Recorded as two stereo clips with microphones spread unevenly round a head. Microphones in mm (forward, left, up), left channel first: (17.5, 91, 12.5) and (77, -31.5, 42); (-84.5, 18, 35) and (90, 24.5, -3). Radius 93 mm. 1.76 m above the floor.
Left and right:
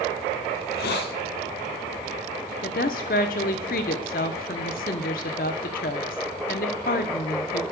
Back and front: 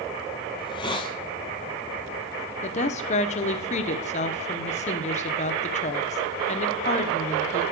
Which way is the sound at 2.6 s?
160° left.